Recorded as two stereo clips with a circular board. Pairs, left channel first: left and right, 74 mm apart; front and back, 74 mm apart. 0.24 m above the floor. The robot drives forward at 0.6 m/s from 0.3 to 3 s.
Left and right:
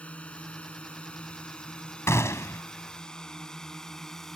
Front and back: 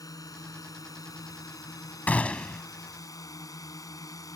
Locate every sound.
0.0 s a drone: 20° left; by 4.4 s 5° left
2.1 s a gunshot: 60° left; by 2.6 s 75° left